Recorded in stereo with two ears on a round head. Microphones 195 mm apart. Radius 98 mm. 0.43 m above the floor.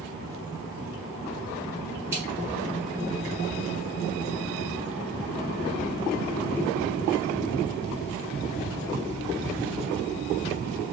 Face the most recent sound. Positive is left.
turn(degrees=-10)  # may be behind; listen again after turning